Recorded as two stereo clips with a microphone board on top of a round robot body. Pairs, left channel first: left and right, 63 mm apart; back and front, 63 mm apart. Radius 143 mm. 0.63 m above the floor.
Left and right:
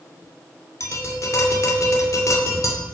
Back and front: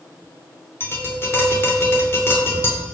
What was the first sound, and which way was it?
Tapping, 130° left.